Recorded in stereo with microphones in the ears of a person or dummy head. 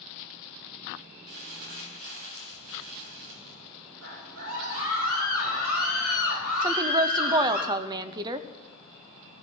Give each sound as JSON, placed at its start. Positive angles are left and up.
{"t": 1.3, "sound": "crumpling", "side_deg": -55, "distance_m": 2.5}
{"t": 4.0, "sound": "a scream", "side_deg": -70, "distance_m": 7.5}
{"t": 6.6, "sound": "a woman speaking", "side_deg": -25, "distance_m": 0.6}